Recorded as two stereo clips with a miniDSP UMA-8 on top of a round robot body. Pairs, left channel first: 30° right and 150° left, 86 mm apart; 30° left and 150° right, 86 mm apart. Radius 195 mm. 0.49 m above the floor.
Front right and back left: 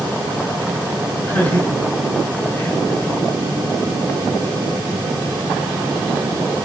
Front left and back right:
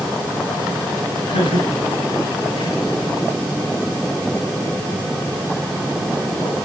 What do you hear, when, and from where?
1.3 s laughter: 40° left, 7 m; by 3.1 s 45° left, 8 m